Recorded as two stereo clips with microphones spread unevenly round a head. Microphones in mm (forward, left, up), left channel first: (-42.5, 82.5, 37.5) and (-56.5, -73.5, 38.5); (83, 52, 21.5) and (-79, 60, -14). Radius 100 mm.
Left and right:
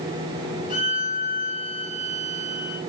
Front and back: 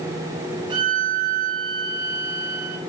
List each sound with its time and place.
0.7 s a violin: 115° left, 2.5 m